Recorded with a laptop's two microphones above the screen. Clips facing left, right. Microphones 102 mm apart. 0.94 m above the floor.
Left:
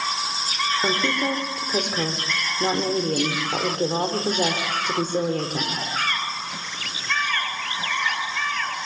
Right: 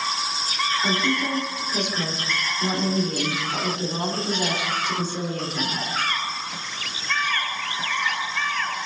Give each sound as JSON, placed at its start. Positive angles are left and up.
{"t": 0.8, "sound": "a woman speaking", "side_deg": 45, "distance_m": 2.5}